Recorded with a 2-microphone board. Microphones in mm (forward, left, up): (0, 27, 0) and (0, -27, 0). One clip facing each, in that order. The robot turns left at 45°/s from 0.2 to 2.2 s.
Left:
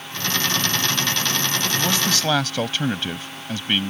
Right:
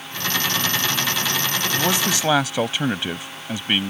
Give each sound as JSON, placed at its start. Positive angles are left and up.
{"t": 1.7, "sound": "a man speaking", "side_deg": -20}